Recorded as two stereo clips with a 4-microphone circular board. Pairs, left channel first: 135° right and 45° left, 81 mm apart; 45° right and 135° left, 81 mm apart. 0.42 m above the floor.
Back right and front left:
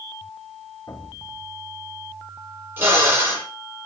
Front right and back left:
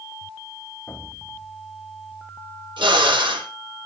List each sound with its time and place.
0.9 s an explosion: 105° right, 1.5 m
2.8 s a drill: 110° left, 7.5 m